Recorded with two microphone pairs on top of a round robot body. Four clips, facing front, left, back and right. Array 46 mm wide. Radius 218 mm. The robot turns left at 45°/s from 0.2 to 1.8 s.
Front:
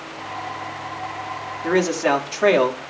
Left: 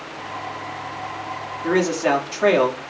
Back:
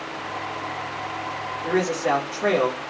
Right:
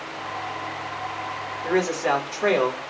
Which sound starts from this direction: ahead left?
A man speaking, at 1.6 s.